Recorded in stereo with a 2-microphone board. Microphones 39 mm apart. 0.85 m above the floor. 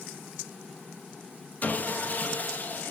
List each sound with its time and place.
1.6 s sawing: 40° left (ahead or behind), 1.2 m